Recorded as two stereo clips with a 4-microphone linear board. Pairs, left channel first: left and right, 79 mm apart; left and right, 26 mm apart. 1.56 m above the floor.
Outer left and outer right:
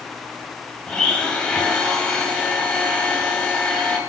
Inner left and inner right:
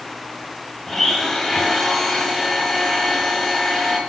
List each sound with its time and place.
0.9 s a blender: 10° left (ahead or behind), 1.8 m